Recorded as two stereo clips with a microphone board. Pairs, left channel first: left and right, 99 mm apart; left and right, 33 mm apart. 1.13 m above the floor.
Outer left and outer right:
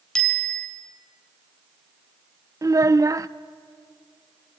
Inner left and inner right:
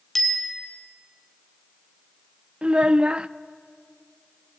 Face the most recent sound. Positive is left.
turn(degrees=-35)  # may be behind; listen again after turning